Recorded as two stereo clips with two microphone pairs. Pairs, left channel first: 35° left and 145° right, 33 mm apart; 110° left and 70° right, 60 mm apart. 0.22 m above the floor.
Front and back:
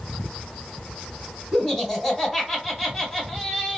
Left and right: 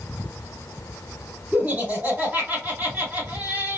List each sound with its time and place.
1.5 s laughter: 40° right, 1.8 m